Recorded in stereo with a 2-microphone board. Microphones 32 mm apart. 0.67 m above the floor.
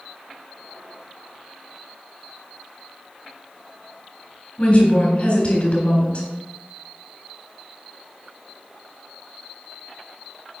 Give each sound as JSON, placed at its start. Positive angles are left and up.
{"t": 4.6, "sound": "a woman speaking", "side_deg": 50, "distance_m": 3.5}